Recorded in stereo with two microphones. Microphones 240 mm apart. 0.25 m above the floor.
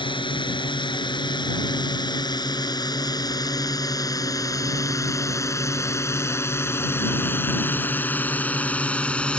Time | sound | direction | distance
0.0 | a drone | 20° left (ahead or behind) | ?